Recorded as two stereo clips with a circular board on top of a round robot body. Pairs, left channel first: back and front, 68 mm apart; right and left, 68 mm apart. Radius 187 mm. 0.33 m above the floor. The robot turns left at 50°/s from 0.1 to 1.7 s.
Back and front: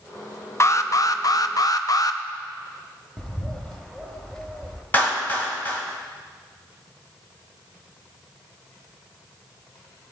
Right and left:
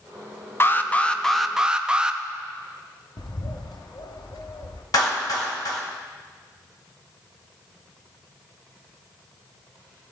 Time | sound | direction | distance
0.6 | an alarm | 140° right | 0.8 m
3.2 | a bird | 100° right | 1.1 m
4.9 | a clap | 120° right | 2 m